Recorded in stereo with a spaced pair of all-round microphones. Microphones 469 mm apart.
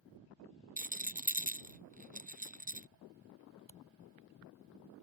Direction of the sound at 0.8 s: 15° right (ahead or behind).